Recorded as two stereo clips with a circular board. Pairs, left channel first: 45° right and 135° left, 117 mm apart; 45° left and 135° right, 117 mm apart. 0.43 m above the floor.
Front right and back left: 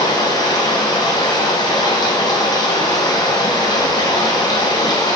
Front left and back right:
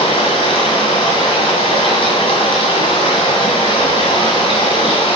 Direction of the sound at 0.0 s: 5° left.